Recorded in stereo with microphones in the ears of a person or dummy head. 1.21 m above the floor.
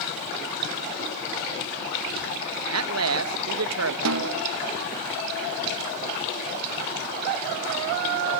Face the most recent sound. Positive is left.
turn(degrees=-80)